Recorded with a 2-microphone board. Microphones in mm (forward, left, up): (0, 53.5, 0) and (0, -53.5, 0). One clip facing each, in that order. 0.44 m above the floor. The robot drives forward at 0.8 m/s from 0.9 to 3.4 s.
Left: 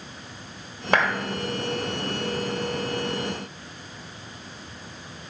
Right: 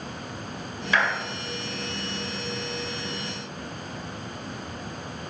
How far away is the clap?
About 1.7 m.